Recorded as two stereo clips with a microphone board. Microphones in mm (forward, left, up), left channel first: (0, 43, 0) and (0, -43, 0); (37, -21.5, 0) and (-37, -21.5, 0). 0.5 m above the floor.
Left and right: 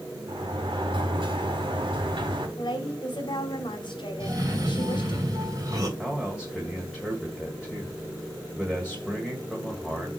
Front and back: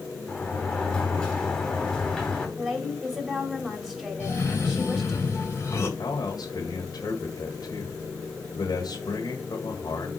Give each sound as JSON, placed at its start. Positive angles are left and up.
{"t": 0.3, "sound": "a sliding door", "azimuth_deg": -75, "distance_m": 2.5}
{"t": 2.6, "sound": "a woman speaking", "azimuth_deg": 95, "distance_m": 2.5}
{"t": 4.2, "sound": "a cough", "azimuth_deg": -50, "distance_m": 3.0}
{"t": 6.0, "sound": "a man speaking", "azimuth_deg": -10, "distance_m": 1.7}